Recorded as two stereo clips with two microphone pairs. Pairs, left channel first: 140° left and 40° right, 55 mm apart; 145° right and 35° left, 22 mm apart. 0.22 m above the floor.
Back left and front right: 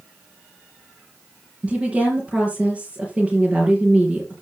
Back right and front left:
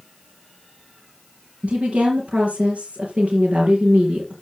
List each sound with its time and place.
1.6 s a woman speaking: 35° left, 4 m